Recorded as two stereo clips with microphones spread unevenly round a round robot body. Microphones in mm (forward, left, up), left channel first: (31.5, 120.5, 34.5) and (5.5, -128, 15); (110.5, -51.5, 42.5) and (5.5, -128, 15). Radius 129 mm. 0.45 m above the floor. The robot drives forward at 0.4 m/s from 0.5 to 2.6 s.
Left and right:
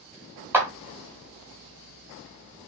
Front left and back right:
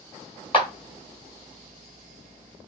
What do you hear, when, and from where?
0.5 s a clap: 15° right, 1.4 m